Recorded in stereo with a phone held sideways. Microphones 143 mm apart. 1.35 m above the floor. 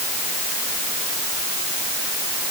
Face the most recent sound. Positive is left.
No sound to turn to.